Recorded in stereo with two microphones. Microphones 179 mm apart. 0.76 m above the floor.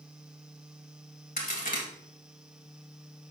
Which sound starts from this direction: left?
A crack, at 1.4 s.